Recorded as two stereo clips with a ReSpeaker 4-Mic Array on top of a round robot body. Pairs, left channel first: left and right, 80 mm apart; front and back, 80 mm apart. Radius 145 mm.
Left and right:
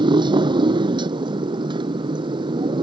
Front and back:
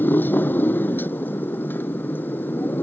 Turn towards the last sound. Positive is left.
turn(degrees=-70)